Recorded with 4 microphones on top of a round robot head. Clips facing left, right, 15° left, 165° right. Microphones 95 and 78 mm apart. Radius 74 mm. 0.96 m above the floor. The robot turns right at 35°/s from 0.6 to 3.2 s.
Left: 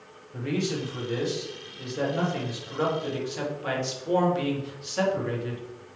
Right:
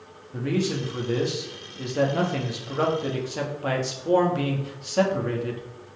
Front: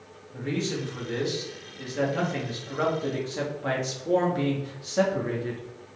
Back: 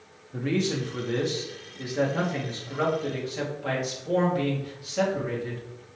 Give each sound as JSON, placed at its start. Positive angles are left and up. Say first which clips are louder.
{"t": 0.3, "sound": "a man speaking", "louder": "right 3 dB, back 3 dB", "azimuth_deg": -140, "distance_m": 2.0}